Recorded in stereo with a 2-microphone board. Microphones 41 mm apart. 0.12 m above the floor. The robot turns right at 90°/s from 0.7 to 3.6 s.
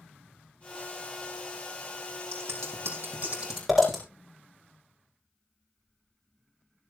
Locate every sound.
2.3 s scissors: 60° right (ahead or behind), 6.5 m; by 4.0 s 5° right (ahead or behind), 6.5 m